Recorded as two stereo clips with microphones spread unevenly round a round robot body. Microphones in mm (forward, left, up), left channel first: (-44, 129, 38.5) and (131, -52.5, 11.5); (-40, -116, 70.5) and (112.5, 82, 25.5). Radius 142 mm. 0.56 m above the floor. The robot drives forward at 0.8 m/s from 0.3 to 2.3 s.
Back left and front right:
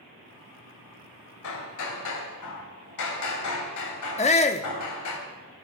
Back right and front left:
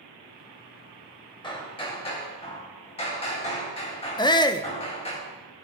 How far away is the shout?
About 0.7 m.